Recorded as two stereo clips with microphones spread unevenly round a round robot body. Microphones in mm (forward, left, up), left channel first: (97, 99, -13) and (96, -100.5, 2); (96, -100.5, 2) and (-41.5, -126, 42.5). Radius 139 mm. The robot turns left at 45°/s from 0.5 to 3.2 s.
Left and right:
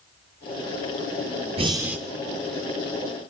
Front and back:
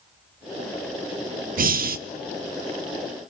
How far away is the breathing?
About 0.7 m.